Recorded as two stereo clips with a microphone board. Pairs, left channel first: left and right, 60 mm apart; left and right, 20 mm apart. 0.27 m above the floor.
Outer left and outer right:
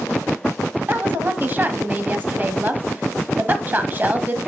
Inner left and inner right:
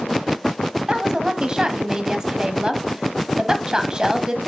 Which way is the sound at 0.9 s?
30° right (ahead or behind).